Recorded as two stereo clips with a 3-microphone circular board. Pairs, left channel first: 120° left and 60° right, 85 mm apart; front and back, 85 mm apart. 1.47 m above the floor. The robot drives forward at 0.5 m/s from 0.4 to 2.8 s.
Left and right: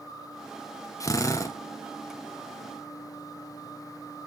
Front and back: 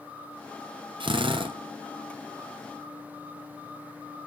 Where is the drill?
170° left, 0.8 m; by 1.6 s 175° left, 1.1 m.